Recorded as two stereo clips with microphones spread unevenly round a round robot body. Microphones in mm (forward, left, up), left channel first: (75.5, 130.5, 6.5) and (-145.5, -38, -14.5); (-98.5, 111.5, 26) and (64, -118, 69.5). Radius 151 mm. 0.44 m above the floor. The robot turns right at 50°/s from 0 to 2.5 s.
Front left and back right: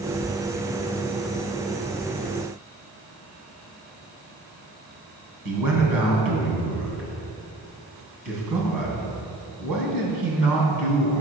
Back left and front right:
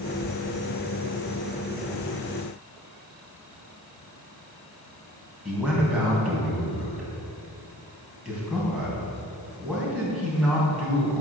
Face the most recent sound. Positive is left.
turn(degrees=-145)